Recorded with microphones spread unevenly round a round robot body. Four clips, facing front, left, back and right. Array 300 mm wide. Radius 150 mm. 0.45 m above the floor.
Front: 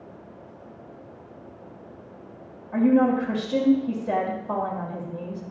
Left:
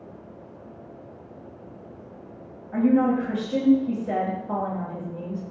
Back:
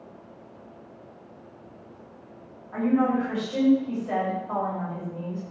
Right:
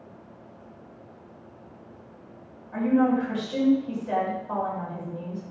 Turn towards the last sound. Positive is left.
turn(degrees=35)